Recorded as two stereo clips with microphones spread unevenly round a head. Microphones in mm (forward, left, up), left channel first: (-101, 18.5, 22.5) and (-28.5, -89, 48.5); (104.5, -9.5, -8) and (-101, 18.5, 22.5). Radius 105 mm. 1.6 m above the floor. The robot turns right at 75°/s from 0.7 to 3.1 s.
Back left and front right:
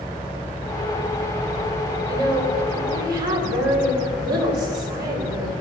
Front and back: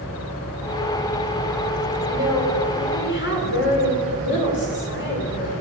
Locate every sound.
2.1 s a woman speaking: 125° right, 6 m; by 5.5 s 45° right, 6 m